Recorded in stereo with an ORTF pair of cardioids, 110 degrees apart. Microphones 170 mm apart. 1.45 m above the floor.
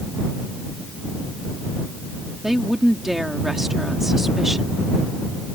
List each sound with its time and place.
2.4 s a woman speaking: straight ahead